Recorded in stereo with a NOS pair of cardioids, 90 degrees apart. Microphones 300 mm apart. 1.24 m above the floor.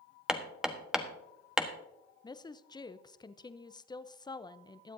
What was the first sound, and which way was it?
Hammering, straight ahead.